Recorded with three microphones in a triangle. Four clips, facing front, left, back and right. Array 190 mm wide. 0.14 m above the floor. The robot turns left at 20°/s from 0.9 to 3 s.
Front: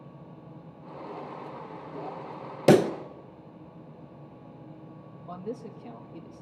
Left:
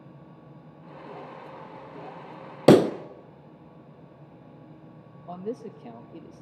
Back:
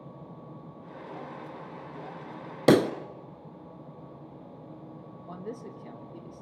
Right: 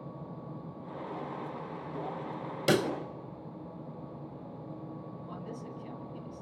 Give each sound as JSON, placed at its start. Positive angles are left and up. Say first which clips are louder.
{"t": 2.7, "sound": "a pop", "louder": "left 12 dB, front 1 dB", "azimuth_deg": 90, "distance_m": 0.6}
{"t": 5.3, "sound": "a man speaking", "louder": "left 11 dB, front 3 dB", "azimuth_deg": 100, "distance_m": 2.5}